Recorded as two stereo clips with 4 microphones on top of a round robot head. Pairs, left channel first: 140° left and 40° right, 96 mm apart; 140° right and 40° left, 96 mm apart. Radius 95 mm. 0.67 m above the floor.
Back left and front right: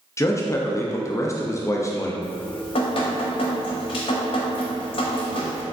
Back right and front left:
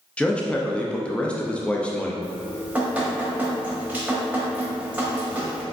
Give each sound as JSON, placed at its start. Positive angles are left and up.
{"t": 0.2, "sound": "a man speaking", "azimuth_deg": 150, "distance_m": 0.6}
{"t": 2.2, "sound": "dripping", "azimuth_deg": 115, "distance_m": 0.8}